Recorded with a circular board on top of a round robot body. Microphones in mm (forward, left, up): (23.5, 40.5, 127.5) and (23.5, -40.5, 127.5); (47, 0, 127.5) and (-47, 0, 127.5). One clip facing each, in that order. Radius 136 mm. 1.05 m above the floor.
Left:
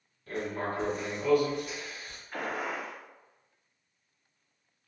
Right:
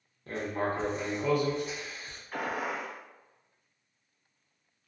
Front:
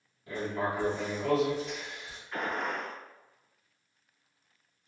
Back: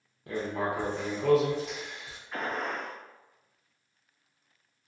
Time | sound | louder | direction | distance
0.3 | writing | right 2 dB, back 1 dB | 150° right | 0.8 m
2.3 | a gunshot | right 1 dB, even | 100° right | 1.1 m